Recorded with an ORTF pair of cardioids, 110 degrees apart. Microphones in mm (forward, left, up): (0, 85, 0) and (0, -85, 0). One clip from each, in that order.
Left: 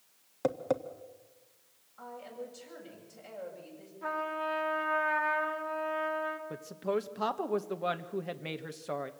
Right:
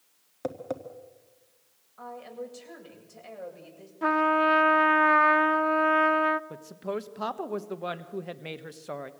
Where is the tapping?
15° left, 1.6 m.